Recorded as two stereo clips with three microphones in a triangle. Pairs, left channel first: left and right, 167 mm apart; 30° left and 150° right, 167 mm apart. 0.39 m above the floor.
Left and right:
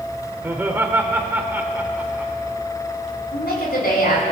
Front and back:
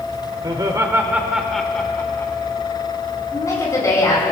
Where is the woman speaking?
100° left, 4 m.